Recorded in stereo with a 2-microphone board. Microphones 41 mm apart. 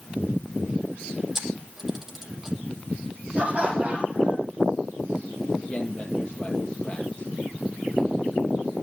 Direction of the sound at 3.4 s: 25° right (ahead or behind).